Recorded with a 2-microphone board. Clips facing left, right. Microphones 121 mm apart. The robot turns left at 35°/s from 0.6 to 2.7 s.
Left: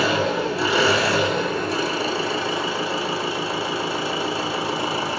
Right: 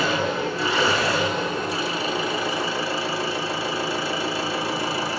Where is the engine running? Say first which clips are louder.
Left 2 dB; 95° left, 1.4 m; by 5.2 s 20° left, 1.4 m.